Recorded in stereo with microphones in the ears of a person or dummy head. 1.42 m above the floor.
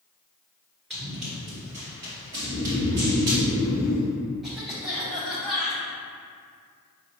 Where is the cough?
Centre (ahead or behind), 1.5 m.